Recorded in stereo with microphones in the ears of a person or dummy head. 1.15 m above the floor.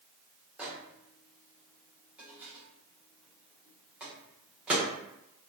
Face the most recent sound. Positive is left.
turn(degrees=-5)  # may be behind; listen again after turning